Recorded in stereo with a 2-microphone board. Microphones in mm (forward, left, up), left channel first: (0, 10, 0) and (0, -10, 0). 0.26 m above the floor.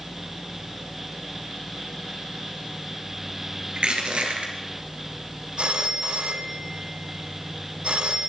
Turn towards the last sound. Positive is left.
turn(degrees=-55)  # may be behind; listen again after turning